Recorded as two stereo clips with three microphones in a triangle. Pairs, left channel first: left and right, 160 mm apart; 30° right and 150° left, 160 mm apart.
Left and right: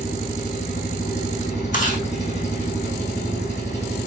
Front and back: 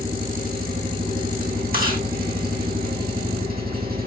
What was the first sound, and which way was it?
An engine running, 130° left.